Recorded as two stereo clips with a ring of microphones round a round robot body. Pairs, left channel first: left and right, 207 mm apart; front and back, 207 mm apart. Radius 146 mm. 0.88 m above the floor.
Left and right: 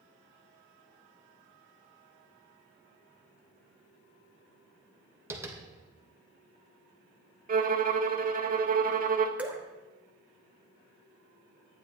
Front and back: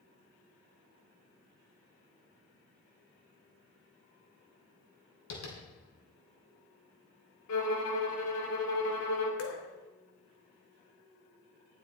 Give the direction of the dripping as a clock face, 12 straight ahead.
12 o'clock.